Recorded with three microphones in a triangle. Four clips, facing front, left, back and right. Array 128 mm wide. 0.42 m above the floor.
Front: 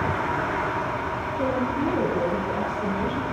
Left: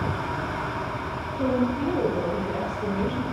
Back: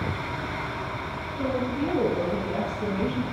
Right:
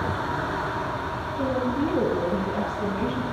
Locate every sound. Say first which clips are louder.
1.4 s a woman speaking: left 1 dB, front 2 dB; 85° right, 5.5 m; by 3.2 s 110° right, 3 m